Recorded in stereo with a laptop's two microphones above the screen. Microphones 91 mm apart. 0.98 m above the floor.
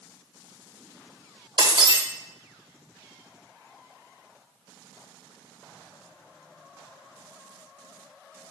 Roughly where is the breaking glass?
Right.